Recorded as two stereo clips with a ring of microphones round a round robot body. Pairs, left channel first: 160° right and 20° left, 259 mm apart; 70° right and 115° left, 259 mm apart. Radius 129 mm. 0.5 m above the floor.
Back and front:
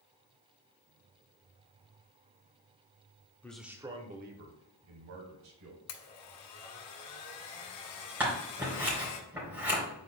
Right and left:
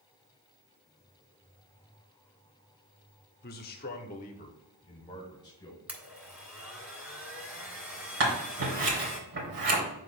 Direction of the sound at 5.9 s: 165° right.